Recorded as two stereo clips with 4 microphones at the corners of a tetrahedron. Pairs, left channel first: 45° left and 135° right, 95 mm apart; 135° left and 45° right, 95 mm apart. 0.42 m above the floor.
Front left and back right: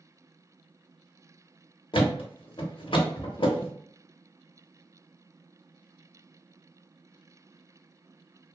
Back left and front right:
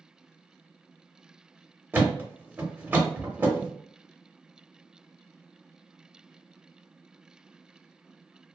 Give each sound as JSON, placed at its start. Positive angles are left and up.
{"t": 1.9, "sound": "a thud", "azimuth_deg": 25, "distance_m": 0.7}